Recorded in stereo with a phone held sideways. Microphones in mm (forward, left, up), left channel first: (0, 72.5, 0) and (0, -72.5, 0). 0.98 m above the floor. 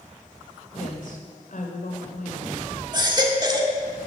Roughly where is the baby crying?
Right.